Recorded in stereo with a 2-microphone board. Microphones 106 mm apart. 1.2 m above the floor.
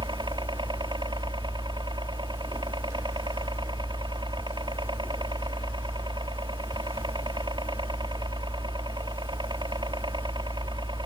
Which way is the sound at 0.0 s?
45° right (ahead or behind).